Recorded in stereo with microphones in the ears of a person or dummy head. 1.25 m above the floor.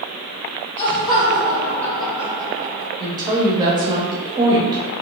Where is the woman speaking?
20° right (ahead or behind), 0.7 m.